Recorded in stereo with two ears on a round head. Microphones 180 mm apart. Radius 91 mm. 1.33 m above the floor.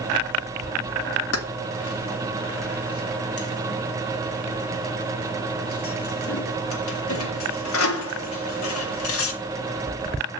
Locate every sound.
1.3 s keys jangling: 75° left (ahead or behind), 1.9 m